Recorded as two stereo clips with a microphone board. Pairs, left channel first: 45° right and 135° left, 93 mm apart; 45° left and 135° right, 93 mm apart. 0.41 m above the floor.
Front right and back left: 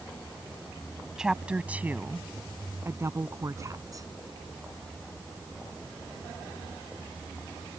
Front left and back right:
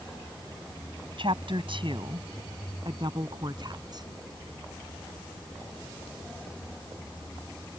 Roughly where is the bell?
No bell in this recording.